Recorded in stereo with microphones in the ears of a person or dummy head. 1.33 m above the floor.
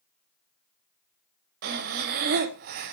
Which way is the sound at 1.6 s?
50° right (ahead or behind).